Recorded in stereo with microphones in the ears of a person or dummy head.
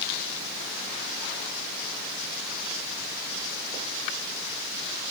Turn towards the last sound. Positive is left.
No sound to turn to.